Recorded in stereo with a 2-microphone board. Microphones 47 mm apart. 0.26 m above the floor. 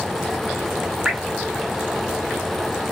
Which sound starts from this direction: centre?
Dripping, at 1.1 s.